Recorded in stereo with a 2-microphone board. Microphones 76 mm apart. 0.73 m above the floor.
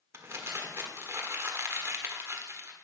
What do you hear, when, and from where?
0.1 s crumpling: 35° right (ahead or behind), 1.6 m